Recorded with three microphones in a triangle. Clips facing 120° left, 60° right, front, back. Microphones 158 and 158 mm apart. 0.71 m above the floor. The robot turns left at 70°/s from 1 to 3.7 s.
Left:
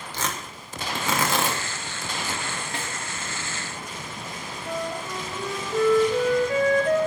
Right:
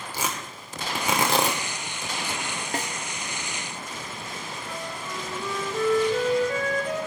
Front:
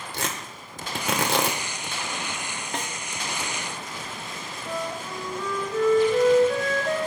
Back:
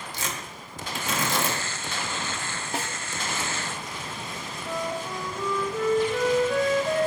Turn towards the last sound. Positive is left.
turn(degrees=95)